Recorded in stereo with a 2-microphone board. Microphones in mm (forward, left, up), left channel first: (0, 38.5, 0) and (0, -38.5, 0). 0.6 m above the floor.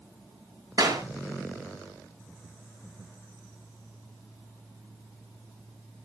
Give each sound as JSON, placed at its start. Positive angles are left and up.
{"t": 0.8, "sound": "a clap", "side_deg": -55, "distance_m": 8.0}